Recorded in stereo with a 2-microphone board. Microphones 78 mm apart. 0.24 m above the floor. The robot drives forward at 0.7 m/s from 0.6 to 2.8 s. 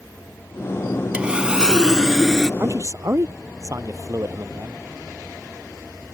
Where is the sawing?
15° right (ahead or behind); by 2.5 s 5° right (ahead or behind).